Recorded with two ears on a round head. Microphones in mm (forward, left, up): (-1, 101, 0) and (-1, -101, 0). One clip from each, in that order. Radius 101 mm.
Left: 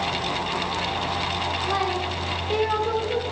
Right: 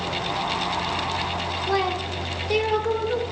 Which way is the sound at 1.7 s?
60° right (ahead or behind).